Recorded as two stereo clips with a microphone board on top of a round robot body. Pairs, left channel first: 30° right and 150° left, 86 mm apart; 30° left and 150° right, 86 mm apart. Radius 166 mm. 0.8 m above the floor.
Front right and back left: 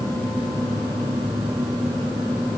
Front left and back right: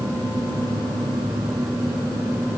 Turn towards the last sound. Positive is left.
No sound to turn to.